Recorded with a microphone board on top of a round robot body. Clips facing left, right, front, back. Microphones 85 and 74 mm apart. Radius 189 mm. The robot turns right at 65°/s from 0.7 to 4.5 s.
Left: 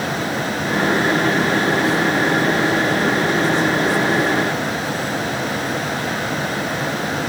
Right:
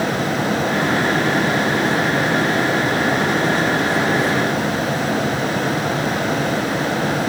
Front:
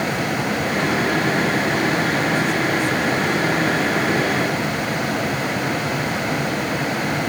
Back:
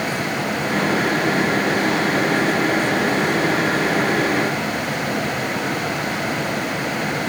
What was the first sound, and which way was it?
Only background noise.